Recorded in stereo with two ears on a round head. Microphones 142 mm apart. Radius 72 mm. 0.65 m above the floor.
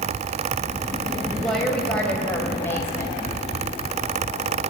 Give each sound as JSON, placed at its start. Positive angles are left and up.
{"t": 1.3, "sound": "a woman speaking", "side_deg": 0, "distance_m": 3.0}